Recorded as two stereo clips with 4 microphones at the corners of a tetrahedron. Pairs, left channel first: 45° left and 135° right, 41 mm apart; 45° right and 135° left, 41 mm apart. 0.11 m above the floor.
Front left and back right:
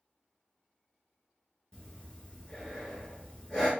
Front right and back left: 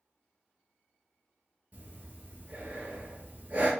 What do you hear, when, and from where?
1.7 s breathing: 105° left, 1.1 m